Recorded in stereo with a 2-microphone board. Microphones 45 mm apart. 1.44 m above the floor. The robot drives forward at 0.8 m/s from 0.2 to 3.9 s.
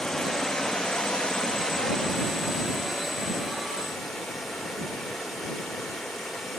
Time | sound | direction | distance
0.0 | running water | 10° left (ahead or behind) | 1.0 m